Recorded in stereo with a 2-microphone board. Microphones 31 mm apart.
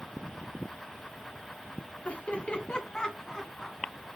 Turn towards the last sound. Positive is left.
turn(degrees=-5)  # may be behind; listen again after turning